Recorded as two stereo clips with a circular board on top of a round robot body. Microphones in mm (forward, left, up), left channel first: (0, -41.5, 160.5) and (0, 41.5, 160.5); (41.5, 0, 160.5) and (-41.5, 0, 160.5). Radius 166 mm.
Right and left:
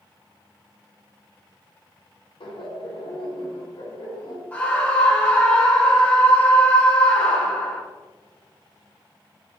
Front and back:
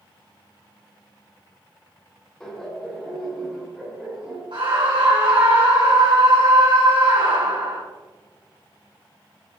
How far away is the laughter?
About 2 m.